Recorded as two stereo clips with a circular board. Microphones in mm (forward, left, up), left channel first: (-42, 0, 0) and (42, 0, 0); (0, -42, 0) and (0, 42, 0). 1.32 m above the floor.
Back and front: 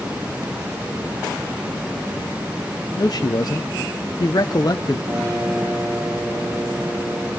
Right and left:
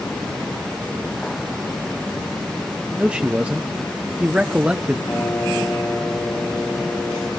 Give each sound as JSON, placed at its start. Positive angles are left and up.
{"t": 3.0, "sound": "a man speaking", "azimuth_deg": 165, "distance_m": 0.7}
{"t": 5.1, "sound": "a piano", "azimuth_deg": -30, "distance_m": 8.5}